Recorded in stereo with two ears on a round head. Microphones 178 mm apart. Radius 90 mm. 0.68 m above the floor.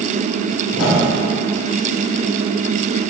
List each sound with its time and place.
0.7 s a whoosh: 70° left (ahead or behind), 2.5 m